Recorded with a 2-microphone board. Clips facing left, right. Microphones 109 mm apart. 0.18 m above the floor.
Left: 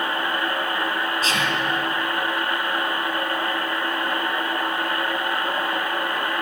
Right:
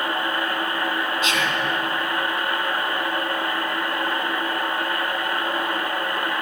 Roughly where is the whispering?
Left.